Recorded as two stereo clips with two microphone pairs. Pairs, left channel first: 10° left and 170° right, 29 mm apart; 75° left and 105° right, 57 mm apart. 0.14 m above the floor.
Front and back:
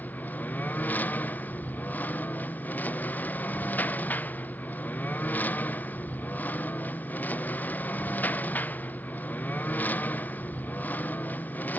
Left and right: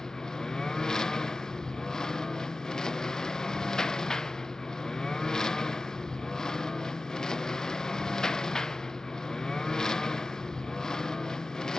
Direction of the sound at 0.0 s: Straight ahead.